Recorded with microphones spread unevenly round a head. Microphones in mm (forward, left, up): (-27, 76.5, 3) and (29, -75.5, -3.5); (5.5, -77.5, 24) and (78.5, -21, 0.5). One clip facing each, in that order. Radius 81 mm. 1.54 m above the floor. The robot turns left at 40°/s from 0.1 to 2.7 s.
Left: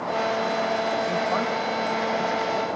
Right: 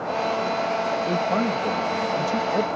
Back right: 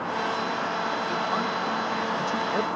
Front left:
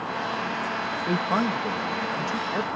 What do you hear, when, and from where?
1.1 s a man speaking: 5° right; by 2.7 s 70° right